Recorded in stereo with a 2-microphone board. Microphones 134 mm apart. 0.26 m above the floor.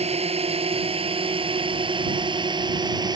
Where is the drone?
50° right (ahead or behind); by 3.2 s 30° right (ahead or behind).